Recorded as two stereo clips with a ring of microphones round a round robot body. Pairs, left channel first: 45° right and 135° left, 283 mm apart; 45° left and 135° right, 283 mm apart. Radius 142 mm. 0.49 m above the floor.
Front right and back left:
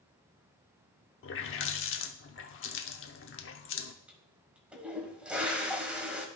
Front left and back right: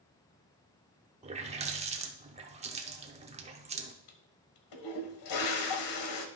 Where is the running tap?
75° right, 0.8 m.